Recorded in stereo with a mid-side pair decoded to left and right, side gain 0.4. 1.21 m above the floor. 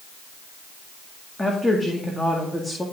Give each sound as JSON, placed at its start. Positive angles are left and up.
{"t": 1.4, "sound": "a woman speaking", "azimuth_deg": 10, "distance_m": 2.0}